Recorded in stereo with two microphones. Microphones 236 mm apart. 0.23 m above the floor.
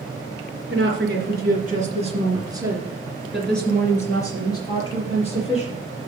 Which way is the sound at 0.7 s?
50° right (ahead or behind).